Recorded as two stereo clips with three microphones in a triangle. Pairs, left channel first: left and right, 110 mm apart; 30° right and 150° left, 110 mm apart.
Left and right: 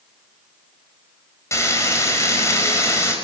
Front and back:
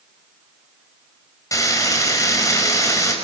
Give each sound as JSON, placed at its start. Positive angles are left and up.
{"t": 1.5, "sound": "frying", "azimuth_deg": 30, "distance_m": 5.0}